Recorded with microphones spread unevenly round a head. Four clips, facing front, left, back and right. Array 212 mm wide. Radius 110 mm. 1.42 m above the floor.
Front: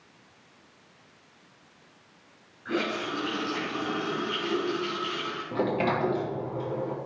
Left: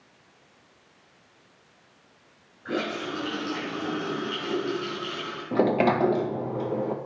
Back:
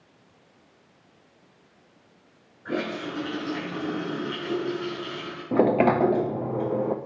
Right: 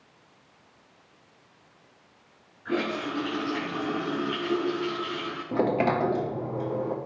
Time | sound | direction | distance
2.6 | a running tap | 155° left | 4.5 m
5.5 | a sliding door | 165° left | 0.6 m